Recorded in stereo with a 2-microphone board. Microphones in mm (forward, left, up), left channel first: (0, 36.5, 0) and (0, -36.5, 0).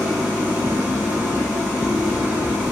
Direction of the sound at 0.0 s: 25° right (ahead or behind).